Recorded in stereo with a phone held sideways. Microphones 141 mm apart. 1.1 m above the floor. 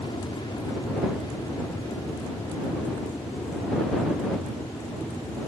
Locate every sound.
0.0 s an aircraft: 35° left (ahead or behind); by 5.5 s 20° left (ahead or behind)